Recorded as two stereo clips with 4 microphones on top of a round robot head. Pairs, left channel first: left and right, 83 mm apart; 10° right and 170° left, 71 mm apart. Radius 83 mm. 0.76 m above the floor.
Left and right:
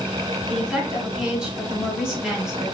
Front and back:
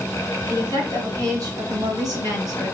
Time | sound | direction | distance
0.5 | a woman speaking | 165° right | 2.5 m